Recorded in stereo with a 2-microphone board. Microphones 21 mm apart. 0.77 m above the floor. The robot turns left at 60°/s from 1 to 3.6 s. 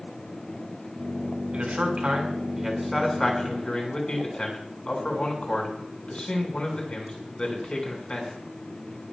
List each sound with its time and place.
1.5 s a man speaking: 80° right, 6 m; by 8.3 s 45° left (ahead or behind), 6 m